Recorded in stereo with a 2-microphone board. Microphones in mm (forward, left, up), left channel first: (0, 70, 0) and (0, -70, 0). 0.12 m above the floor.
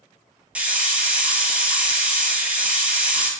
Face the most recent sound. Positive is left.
turn(degrees=-10)  # may be behind; listen again after turning